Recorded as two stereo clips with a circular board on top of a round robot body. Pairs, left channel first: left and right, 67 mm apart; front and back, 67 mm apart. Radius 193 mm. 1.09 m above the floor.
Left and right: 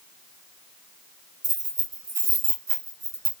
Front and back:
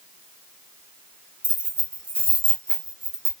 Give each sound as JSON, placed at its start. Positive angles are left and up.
{"t": 1.4, "sound": "keys jangling", "azimuth_deg": -110, "distance_m": 1.9}